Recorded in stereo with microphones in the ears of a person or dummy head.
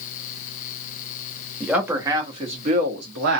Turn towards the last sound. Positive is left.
turn(degrees=-65)  # may be behind; listen again after turning